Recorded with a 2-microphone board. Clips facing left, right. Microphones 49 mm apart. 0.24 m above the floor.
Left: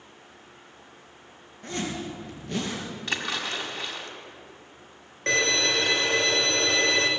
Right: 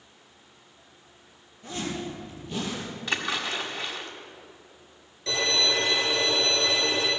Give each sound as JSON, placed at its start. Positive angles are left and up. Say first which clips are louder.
{"t": 1.6, "sound": "a zipper", "louder": "left 1 dB", "side_deg": 60, "distance_m": 3.5}
{"t": 3.1, "sound": "a splash", "louder": "right 1 dB", "side_deg": 0, "distance_m": 1.9}
{"t": 5.3, "sound": "a violin", "louder": "left 2 dB", "side_deg": 55, "distance_m": 2.0}